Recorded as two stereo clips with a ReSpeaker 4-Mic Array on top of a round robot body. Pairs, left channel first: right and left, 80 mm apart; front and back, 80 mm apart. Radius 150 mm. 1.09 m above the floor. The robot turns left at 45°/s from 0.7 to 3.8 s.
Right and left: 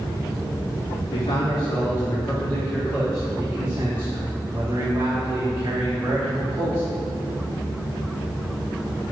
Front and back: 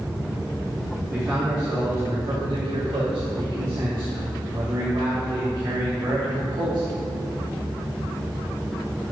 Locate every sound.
1.1 s a man speaking: 105° right, 3.5 m; by 7.0 s 135° left, 3.5 m